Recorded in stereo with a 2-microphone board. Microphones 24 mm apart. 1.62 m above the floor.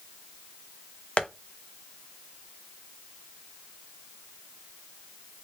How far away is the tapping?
About 0.5 m.